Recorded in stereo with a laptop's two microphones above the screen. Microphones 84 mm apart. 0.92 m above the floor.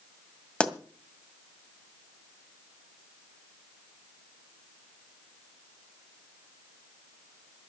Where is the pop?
10° left (ahead or behind), 1.8 m.